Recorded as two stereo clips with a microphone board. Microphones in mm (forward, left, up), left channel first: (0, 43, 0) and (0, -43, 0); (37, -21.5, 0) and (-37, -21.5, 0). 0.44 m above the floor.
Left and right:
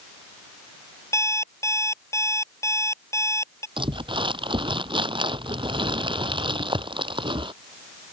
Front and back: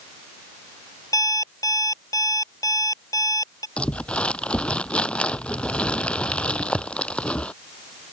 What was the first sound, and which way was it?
An alarm clock, 35° left.